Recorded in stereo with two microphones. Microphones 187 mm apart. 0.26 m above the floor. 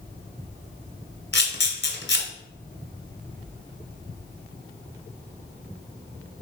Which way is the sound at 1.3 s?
70° left (ahead or behind).